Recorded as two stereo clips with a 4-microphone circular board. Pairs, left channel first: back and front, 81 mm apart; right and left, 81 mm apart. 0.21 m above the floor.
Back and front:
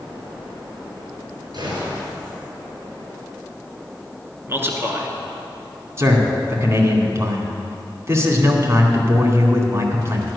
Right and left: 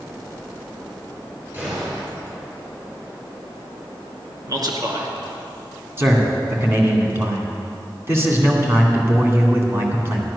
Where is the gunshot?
25° left, 4 m.